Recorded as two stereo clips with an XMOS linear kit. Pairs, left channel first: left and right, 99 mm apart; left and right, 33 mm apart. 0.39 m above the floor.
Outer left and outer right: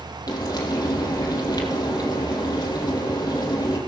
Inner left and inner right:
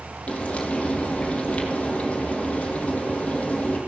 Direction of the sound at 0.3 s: 45° left (ahead or behind).